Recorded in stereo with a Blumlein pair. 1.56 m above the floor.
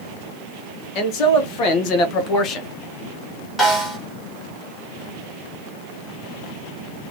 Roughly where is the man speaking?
Ahead left.